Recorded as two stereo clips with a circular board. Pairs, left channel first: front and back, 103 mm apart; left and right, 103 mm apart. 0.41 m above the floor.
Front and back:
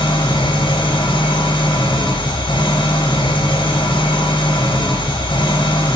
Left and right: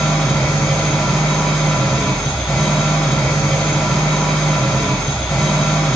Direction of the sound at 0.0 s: 20° left.